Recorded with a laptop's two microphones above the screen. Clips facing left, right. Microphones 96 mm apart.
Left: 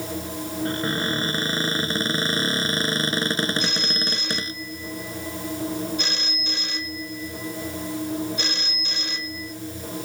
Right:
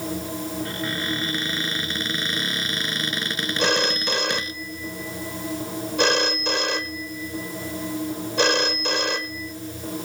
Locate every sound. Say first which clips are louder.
0.7 s a cupboard door: left 3 dB; 35° left (ahead or behind)
3.6 s a phone ringing: right 6 dB; 85° right